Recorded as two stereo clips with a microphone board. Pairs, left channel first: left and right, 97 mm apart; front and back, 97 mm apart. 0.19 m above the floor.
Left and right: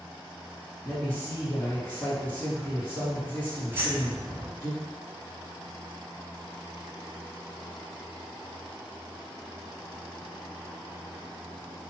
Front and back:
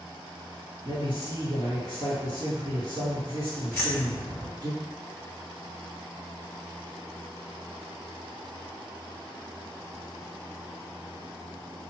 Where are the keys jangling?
55° right, 1.1 m.